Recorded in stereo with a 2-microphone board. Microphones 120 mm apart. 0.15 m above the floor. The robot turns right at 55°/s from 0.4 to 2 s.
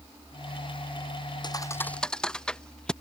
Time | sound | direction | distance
1.4 | a thud | 40° left (ahead or behind) | ?